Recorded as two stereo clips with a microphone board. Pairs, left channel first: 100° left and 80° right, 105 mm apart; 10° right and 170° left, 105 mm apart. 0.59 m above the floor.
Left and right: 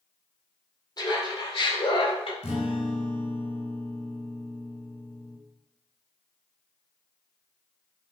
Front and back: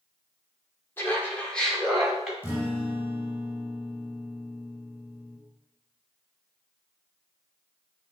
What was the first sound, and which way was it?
Laughter, 55° left.